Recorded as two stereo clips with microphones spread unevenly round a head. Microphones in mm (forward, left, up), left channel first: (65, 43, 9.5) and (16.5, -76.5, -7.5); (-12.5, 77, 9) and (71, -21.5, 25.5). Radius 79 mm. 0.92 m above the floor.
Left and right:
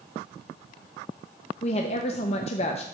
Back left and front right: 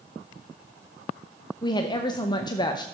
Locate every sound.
1.6 s a woman speaking: 100° left, 0.7 m